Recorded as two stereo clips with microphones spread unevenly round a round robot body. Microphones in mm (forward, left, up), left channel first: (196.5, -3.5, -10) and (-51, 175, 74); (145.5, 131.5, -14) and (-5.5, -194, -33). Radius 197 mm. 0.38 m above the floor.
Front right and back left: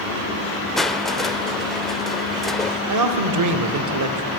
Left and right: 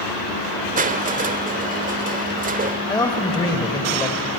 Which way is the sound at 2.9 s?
145° left.